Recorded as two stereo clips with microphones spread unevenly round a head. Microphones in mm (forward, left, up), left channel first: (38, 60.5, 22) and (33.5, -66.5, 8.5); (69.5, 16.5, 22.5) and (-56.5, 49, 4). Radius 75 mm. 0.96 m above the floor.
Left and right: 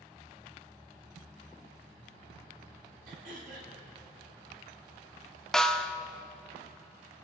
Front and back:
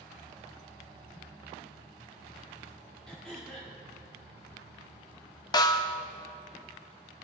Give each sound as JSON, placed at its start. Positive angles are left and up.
{"t": 3.1, "sound": "throat clearing", "azimuth_deg": -100, "distance_m": 1.8}
{"t": 5.5, "sound": "a snare drum", "azimuth_deg": -10, "distance_m": 0.6}